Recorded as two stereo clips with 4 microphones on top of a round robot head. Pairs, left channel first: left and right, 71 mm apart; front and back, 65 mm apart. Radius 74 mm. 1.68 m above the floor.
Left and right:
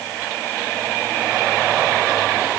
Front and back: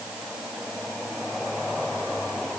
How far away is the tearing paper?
I don't hear tearing paper.